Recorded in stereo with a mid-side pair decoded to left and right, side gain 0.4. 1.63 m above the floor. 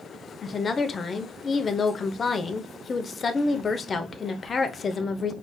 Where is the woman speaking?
45° left, 0.9 m.